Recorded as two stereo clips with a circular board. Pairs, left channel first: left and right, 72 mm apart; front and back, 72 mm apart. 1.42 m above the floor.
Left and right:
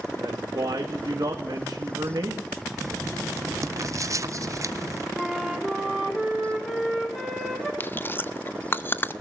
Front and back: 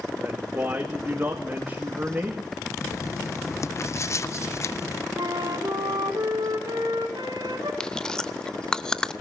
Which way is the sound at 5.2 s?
Straight behind.